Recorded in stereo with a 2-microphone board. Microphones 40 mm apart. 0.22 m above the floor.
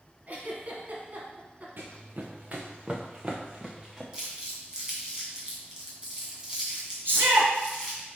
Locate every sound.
0.3 s a giggle: 40° right (ahead or behind), 1.6 m
1.8 s running footsteps: 60° right (ahead or behind), 1.4 m; by 4.0 s 10° right (ahead or behind), 1.9 m
4.1 s crumpling: 15° right (ahead or behind), 2.5 m
7.0 s a shout: 60° right (ahead or behind), 3 m